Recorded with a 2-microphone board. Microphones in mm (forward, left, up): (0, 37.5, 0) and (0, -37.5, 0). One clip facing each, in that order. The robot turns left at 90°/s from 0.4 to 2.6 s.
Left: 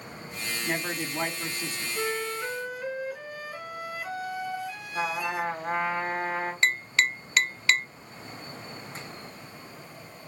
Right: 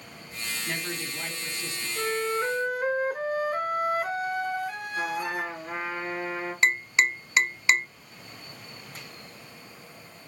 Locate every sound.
0.7 s a man speaking: 155° left, 2 m; by 1.9 s 45° left, 2 m
2.0 s a flute: 10° left, 0.8 m; by 5.5 s 50° right, 0.8 m
5.0 s a trumpet: 50° left (ahead or behind), 2 m
6.6 s tapping: 20° right (ahead or behind), 0.6 m